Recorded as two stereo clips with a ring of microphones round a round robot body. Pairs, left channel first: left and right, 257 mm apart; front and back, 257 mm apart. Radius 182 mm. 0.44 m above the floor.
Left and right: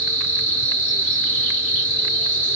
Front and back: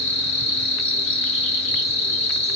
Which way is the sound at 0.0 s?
50° left.